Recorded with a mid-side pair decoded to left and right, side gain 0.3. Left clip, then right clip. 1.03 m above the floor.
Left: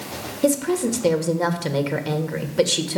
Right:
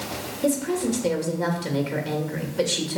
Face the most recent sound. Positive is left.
turn(degrees=60)